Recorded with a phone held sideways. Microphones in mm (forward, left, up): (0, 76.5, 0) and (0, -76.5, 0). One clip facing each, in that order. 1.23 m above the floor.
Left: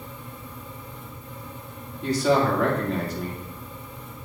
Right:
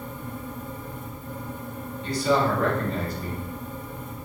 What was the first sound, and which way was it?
A fan, 45° right (ahead or behind).